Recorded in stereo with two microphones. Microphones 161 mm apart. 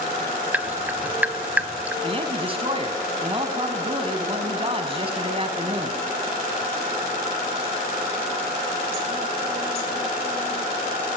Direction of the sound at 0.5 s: 10° right (ahead or behind).